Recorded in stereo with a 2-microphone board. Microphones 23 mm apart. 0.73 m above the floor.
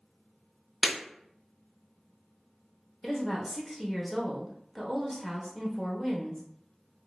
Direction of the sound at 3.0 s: 10° left (ahead or behind).